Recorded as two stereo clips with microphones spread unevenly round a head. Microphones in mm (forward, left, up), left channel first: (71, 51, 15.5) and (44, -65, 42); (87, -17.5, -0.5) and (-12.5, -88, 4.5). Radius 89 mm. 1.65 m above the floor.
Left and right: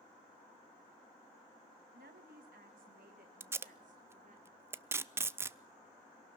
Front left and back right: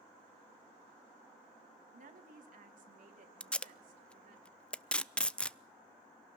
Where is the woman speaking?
135° right, 2 m; by 4.4 s 150° right, 4.5 m.